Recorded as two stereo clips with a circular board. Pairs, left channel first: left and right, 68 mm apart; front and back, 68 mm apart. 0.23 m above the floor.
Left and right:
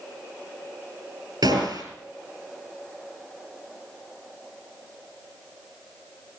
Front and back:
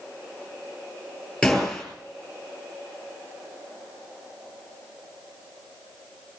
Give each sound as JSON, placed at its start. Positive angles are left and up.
{"t": 1.4, "sound": "a gunshot", "azimuth_deg": -85, "distance_m": 4.0}